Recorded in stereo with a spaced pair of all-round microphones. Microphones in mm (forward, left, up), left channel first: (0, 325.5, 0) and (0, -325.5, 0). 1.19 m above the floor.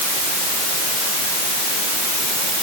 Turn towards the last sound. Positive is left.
No sound to turn to.